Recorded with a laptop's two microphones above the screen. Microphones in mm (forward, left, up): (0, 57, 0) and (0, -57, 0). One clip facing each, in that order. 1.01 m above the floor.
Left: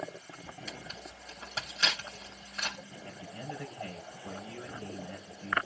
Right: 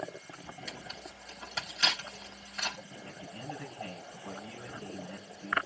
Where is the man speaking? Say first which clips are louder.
Left 1 dB; 30° left (ahead or behind), 4.5 m.